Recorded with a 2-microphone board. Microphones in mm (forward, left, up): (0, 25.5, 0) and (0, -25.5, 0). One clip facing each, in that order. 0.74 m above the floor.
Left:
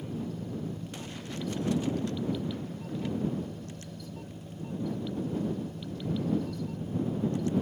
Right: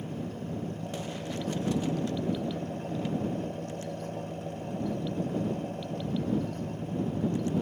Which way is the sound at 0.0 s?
70° right (ahead or behind).